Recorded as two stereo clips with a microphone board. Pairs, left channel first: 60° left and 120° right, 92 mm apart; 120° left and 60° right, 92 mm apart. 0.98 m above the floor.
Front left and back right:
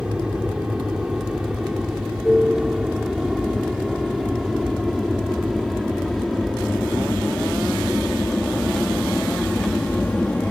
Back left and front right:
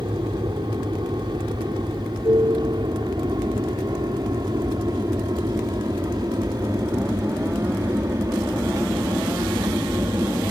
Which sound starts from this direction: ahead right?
An aircraft, at 0.0 s.